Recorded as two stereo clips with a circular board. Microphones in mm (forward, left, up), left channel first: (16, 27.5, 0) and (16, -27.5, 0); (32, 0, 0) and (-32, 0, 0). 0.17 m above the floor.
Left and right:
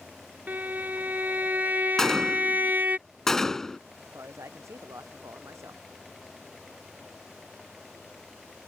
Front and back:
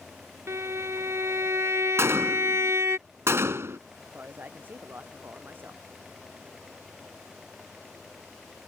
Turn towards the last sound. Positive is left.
turn(degrees=-120)